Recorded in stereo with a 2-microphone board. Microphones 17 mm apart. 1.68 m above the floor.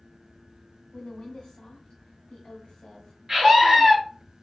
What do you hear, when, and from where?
0.9 s a woman speaking: 80° left, 1.0 m
3.3 s a scream: 35° right (ahead or behind), 1.1 m